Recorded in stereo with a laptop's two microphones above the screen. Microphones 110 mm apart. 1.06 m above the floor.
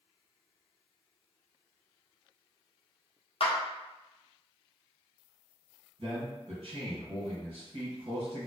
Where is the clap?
60° left (ahead or behind), 0.6 m.